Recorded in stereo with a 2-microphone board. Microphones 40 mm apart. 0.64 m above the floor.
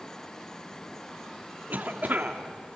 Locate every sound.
1.7 s a cough: 45° right (ahead or behind), 1.7 m